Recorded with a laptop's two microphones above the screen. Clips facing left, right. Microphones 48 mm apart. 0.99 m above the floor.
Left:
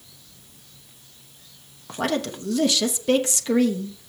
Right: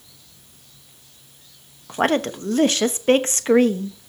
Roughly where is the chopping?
I don't hear chopping.